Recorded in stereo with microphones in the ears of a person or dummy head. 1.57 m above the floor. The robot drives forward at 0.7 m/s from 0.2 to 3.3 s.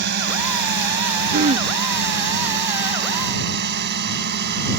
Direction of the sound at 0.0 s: 65° right (ahead or behind).